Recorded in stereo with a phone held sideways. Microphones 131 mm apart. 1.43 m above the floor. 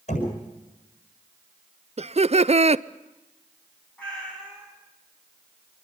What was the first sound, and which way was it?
Knocking, 65° left (ahead or behind).